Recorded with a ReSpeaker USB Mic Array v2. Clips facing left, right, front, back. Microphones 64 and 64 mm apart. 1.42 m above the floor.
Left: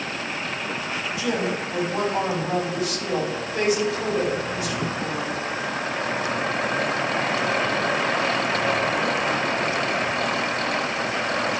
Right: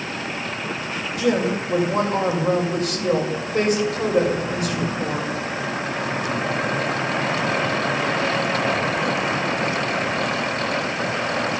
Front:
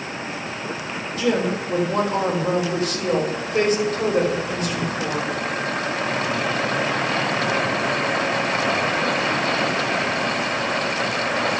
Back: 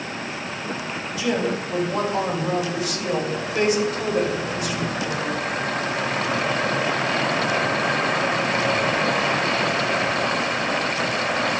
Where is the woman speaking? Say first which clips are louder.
Right 6 dB, front 2 dB; 45° right, 4.5 m.